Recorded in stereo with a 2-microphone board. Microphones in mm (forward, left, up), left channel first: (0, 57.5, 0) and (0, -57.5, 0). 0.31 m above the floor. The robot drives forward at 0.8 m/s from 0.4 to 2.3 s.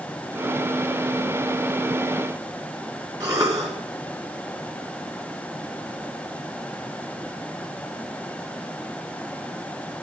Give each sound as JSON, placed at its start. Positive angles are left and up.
{"t": 3.2, "sound": "a cough", "side_deg": -30, "distance_m": 4.5}